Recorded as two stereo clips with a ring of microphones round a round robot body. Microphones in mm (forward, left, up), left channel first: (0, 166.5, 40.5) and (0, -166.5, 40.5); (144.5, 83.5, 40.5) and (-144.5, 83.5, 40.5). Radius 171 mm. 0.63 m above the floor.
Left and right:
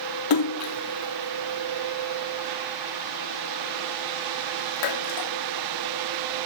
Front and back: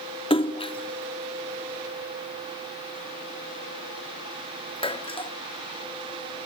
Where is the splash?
75° left, 0.8 m.